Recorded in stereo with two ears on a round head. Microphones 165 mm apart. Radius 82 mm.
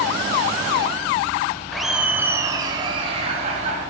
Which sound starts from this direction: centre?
Laughter, at 1.7 s.